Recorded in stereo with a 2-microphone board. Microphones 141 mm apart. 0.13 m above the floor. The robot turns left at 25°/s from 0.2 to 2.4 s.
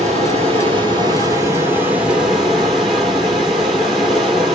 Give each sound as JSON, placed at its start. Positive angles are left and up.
{"t": 0.0, "sound": "running water", "azimuth_deg": -125, "distance_m": 1.7}